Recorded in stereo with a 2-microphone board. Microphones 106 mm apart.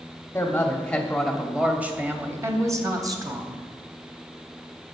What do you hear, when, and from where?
0.3 s a woman speaking: 25° left (ahead or behind), 1.0 m; by 3.6 s 45° right (ahead or behind), 1.5 m